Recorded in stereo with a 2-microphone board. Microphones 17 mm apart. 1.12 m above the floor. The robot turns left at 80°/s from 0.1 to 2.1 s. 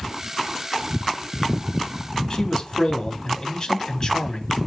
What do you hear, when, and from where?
2.3 s a man speaking: 40° left (ahead or behind), 3 m